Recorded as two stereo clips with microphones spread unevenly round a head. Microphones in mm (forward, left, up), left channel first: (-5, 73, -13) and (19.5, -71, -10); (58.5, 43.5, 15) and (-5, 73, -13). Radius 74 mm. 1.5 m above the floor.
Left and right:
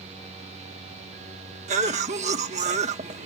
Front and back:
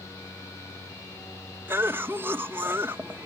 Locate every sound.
1.7 s a cough: 125° right